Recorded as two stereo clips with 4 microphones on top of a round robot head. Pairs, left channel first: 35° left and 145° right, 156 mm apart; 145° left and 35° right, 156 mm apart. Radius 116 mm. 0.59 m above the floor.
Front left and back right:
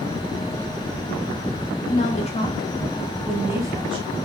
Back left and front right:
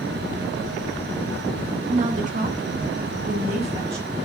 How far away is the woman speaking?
About 2.5 m.